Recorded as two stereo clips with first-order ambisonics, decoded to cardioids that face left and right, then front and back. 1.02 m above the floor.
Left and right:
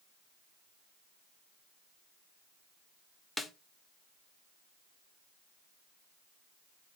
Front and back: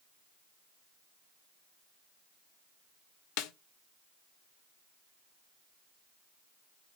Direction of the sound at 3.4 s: 5° left.